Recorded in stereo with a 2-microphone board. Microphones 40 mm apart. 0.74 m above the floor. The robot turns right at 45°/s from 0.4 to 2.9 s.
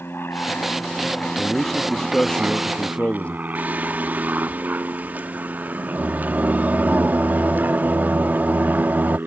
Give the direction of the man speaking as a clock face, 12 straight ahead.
12 o'clock.